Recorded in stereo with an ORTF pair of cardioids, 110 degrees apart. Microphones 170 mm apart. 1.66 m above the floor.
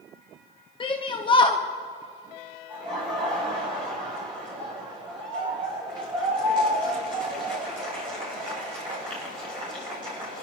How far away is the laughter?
About 5 m.